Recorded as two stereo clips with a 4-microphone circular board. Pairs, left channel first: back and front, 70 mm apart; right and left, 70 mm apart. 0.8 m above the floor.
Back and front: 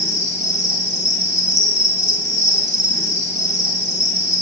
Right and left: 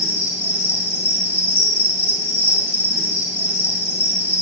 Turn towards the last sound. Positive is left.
turn(degrees=150)